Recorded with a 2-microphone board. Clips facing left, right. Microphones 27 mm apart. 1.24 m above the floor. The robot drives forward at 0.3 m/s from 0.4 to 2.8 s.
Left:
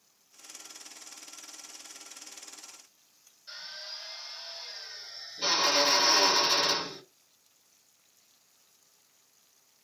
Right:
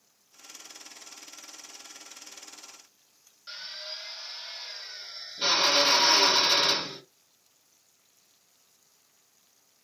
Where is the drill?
45° right (ahead or behind), 1.5 m.